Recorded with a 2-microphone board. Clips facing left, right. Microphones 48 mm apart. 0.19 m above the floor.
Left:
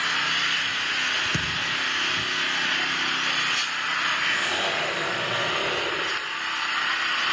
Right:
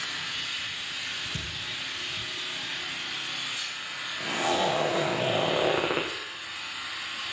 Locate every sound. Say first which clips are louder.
0.0 s an engine running: left 10 dB; 65° left (ahead or behind), 0.9 m
1.3 s a thud: left 10 dB; 65° left (ahead or behind), 1.9 m
4.2 s a zipper: left 2 dB; 80° right, 5.5 m